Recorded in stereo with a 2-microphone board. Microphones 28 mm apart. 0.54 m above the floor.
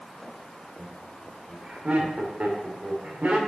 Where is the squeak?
No squeak in this recording.